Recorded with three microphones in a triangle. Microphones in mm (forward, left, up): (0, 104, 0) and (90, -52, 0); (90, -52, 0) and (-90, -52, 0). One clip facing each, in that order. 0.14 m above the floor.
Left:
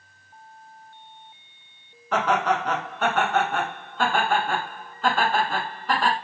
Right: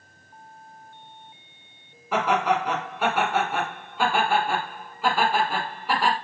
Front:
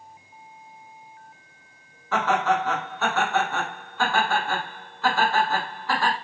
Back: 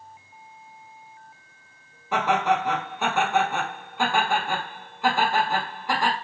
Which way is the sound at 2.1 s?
130° right.